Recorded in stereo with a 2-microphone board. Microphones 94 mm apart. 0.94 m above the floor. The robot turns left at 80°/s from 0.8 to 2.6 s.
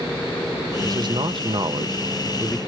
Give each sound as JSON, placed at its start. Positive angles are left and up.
{"t": 0.8, "sound": "a man speaking", "azimuth_deg": -45, "distance_m": 0.5}